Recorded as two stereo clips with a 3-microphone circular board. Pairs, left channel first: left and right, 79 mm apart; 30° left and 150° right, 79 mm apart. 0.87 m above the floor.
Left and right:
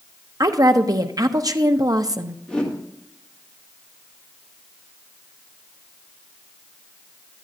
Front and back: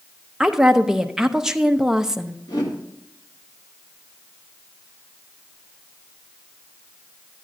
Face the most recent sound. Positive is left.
turn(degrees=10)